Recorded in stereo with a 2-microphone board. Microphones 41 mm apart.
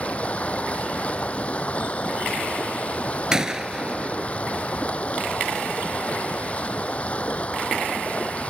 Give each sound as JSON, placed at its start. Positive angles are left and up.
{"t": 0.0, "sound": "running water", "side_deg": 30}
{"t": 3.3, "sound": "a gunshot", "side_deg": -15}